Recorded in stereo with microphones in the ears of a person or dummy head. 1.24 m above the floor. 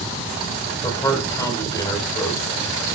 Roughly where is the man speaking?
Left.